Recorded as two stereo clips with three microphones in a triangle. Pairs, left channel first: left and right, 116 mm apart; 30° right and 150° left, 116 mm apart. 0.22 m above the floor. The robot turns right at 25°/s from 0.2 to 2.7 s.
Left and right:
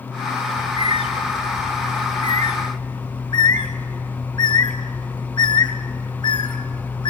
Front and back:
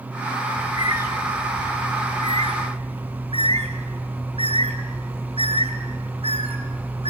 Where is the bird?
75° left, 2.5 m; by 7.1 s 130° left, 2.5 m.